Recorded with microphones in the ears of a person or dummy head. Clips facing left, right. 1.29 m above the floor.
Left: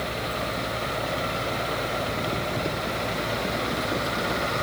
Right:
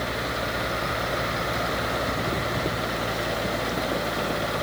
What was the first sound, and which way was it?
A fan, 10° right (ahead or behind).